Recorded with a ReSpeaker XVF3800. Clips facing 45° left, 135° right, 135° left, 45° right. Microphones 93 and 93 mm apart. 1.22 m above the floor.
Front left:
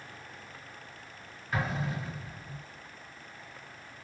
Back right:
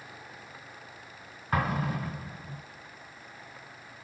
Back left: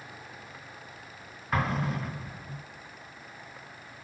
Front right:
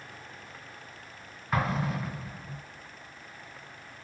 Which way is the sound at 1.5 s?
135° right.